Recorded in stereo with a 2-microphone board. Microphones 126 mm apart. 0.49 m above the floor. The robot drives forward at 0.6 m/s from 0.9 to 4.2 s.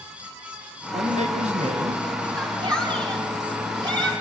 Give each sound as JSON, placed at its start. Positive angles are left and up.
{"t": 0.9, "sound": "a man speaking", "side_deg": -65, "distance_m": 3.0}
{"t": 2.3, "sound": "a shout", "side_deg": -35, "distance_m": 4.5}